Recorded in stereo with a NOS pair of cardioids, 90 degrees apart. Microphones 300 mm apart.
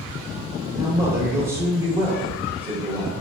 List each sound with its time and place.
0.7 s a man speaking: 10° right, 1.6 m